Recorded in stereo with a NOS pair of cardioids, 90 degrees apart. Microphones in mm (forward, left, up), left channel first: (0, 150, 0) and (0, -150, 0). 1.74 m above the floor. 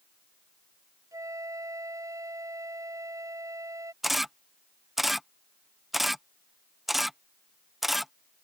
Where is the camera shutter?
Straight ahead.